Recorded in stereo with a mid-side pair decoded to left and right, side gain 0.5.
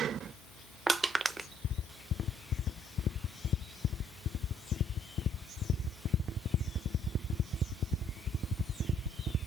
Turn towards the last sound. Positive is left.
turn(degrees=-25)